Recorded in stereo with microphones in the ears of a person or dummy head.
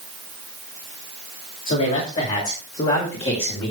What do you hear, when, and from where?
1.7 s a man speaking: 45° left (ahead or behind), 5.5 m; by 3.7 s 30° left (ahead or behind), 3.5 m